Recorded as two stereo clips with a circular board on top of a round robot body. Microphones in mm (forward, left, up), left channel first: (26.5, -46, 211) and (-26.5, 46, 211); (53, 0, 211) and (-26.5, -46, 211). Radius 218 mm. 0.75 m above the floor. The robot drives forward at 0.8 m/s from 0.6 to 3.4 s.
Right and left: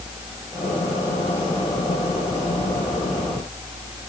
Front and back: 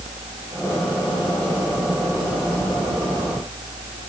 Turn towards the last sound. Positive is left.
No sound to turn to.